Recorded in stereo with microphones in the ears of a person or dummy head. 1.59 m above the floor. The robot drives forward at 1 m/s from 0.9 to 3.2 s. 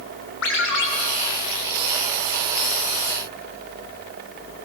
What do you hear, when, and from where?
0.4 s a ringtone: 75° left (ahead or behind), 3.5 m